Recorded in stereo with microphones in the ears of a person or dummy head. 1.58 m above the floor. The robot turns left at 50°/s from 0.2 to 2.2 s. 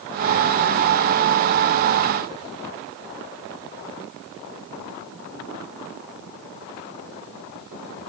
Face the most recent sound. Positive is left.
No sound to turn to.